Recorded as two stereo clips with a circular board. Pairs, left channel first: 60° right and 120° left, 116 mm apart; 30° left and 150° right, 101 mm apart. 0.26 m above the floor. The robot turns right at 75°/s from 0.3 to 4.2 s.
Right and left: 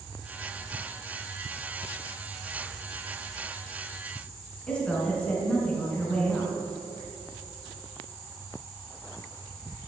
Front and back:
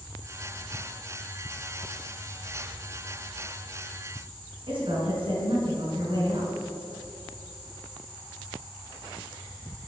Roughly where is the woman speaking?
Behind right.